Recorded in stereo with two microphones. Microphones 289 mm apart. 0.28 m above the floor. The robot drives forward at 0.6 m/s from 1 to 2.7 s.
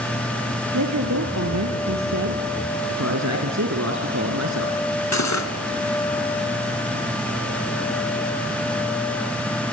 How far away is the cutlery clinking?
About 2.5 m.